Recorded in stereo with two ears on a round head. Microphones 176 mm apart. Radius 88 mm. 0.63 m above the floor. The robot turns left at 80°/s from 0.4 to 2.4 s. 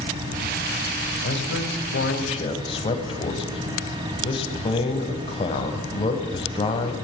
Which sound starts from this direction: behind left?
A man speaking, at 1.2 s.